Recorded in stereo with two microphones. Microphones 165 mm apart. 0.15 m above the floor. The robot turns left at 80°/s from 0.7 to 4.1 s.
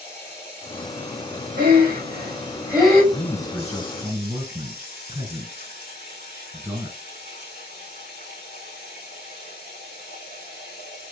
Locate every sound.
0.0 s running water: 15° left, 3.5 m; by 11.1 s 105° left, 3.5 m
1.6 s breathing: 80° right, 4 m; by 3.0 s 15° left (ahead or behind), 4 m
3.1 s a man speaking: 50° left, 1.9 m; by 7.0 s 25° right, 1.9 m